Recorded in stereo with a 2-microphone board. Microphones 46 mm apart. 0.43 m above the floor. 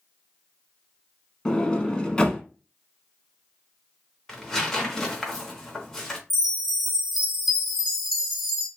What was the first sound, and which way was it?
A sliding door, 20° left (ahead or behind).